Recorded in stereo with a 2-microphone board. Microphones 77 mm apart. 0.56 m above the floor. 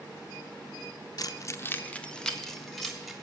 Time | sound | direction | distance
1.2 | keys jangling | 50° left (ahead or behind) | 0.6 m